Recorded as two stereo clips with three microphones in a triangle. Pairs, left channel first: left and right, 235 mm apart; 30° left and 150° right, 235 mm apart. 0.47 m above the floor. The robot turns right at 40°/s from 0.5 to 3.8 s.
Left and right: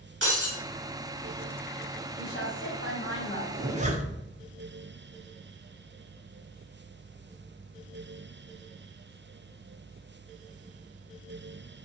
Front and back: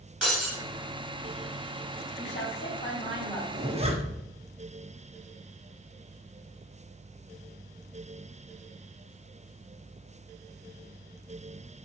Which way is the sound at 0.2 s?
65° right.